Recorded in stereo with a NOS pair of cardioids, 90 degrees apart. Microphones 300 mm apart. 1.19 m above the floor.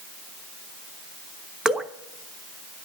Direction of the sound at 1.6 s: Straight ahead.